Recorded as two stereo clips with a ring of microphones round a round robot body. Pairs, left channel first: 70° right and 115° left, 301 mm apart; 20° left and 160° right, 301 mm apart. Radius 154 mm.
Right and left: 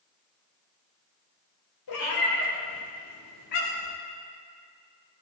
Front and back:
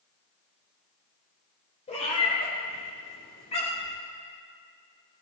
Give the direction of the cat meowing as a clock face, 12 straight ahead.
2 o'clock.